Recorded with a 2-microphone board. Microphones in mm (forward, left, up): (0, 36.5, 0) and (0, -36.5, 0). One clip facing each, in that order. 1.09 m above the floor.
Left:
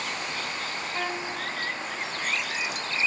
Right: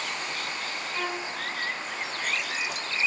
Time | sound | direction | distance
0.9 | a violin | 40° left (ahead or behind) | 2 m